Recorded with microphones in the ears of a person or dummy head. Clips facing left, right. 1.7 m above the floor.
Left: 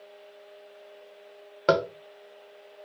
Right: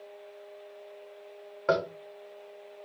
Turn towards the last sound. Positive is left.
turn(degrees=50)  # may be behind; listen again after turning